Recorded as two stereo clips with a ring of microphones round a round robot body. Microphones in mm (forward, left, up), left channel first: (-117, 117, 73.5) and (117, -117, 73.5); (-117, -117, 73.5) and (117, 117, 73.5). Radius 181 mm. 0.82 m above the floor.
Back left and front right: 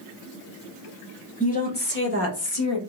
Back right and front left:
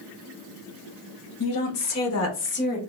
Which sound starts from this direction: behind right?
A woman speaking, at 1.4 s.